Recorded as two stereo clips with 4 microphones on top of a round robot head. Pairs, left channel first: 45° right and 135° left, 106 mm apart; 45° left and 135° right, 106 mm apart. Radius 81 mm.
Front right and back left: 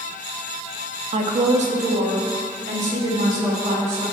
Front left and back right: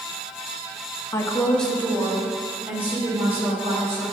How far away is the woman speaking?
About 0.9 m.